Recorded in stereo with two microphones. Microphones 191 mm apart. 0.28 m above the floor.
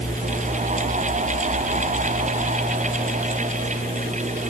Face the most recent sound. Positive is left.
No sound to turn to.